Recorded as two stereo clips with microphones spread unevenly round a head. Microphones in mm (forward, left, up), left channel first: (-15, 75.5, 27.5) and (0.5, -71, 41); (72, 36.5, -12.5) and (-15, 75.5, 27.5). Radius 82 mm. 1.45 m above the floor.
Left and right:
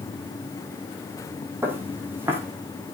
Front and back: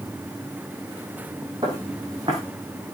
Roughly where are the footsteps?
Behind.